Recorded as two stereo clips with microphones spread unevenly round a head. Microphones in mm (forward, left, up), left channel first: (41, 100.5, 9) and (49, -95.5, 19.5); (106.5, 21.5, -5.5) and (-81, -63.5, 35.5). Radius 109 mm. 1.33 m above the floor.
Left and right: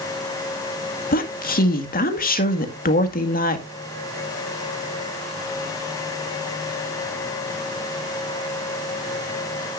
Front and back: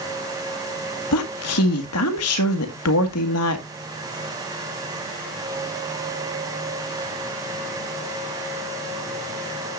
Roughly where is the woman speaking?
Ahead left.